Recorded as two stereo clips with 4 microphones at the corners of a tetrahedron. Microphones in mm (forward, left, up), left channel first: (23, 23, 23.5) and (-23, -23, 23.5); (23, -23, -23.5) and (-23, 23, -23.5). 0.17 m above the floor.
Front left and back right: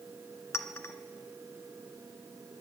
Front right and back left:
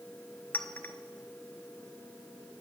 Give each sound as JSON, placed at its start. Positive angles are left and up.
{"t": 0.5, "sound": "a clink", "azimuth_deg": 10, "distance_m": 1.1}